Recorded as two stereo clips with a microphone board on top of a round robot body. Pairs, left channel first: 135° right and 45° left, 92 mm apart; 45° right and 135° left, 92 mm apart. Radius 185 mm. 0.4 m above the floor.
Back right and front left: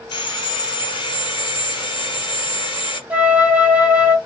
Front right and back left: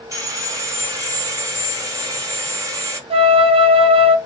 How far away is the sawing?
About 1.4 m.